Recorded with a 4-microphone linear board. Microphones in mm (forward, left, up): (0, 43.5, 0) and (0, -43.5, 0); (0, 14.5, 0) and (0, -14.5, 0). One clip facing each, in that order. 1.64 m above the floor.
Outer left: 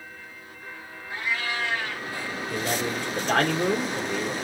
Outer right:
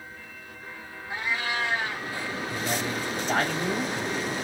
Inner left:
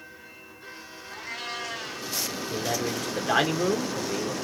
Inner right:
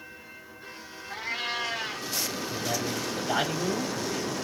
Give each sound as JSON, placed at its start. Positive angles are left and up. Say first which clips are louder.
{"t": 1.1, "sound": "a cat meowing", "louder": "even, inner right 4 dB", "side_deg": -20, "distance_m": 0.9}
{"t": 2.5, "sound": "a man speaking", "louder": "outer left 3 dB, inner left 4 dB", "side_deg": 75, "distance_m": 1.7}